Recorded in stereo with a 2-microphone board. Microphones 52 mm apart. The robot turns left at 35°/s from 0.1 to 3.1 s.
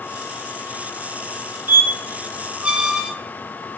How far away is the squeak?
About 0.9 m.